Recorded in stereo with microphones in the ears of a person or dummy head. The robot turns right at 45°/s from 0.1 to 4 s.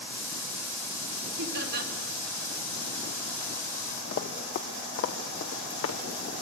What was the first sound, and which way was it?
Laughter, 65° right (ahead or behind).